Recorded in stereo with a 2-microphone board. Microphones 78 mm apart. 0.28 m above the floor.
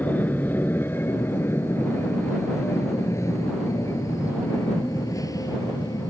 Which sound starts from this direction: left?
An aircraft, at 0.0 s.